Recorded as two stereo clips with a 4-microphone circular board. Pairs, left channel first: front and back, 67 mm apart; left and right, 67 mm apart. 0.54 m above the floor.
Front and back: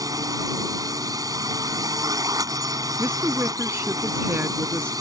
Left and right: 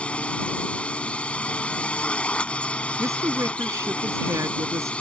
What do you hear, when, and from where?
0.0 s a drone: 160° left
3.0 s a woman speaking: 125° right